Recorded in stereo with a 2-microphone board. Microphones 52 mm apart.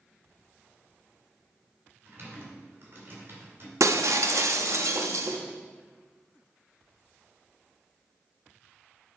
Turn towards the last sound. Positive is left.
turn(degrees=-85)